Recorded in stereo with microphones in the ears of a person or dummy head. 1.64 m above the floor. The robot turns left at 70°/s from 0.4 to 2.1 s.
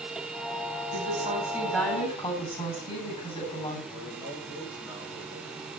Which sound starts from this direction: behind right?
A woman speaking, at 0.9 s.